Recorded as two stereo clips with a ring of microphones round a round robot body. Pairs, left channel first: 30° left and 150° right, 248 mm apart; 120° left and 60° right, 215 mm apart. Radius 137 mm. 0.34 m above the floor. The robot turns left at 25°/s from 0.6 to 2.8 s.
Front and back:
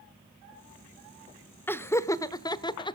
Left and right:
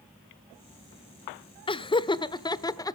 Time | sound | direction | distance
1.7 | laughter | 100° left | 1.0 m